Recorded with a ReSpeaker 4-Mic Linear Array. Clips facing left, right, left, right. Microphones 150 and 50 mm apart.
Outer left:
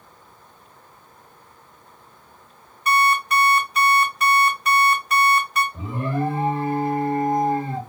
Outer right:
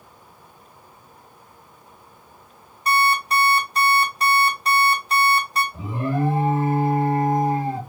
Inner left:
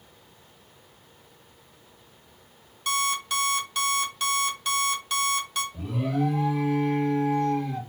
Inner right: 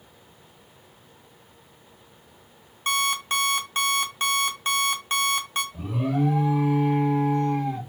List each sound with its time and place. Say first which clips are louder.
2.9 s an alarm clock: outer left 1 dB, inner right 2 dB; 35° right (ahead or behind), 0.7 m
5.7 s an alarm: outer right 1 dB, inner right 2 dB; 10° right (ahead or behind), 1.2 m